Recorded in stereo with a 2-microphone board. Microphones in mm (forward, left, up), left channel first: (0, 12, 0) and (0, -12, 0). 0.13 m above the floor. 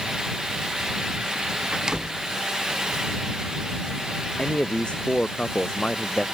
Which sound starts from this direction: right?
A door slam, at 1.7 s.